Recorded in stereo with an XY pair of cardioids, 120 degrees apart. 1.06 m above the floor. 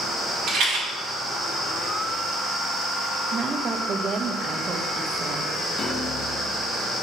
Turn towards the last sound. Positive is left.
turn(degrees=50)